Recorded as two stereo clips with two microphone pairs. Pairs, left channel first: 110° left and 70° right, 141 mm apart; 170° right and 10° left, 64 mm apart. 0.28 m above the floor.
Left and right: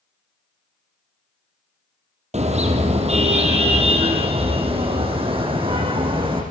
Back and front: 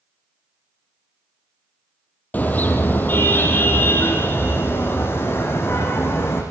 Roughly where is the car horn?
Right.